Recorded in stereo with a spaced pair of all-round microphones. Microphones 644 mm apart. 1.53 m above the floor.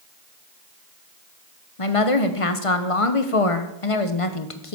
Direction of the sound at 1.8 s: 55° left (ahead or behind).